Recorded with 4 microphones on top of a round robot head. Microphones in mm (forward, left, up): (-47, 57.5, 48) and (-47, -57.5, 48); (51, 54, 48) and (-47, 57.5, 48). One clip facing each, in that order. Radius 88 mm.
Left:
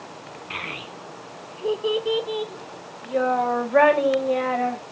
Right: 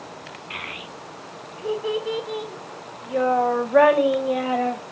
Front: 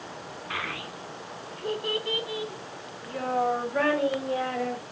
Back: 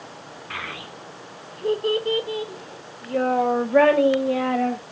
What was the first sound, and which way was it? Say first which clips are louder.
A child speaking: left 2 dB, even; 85° left.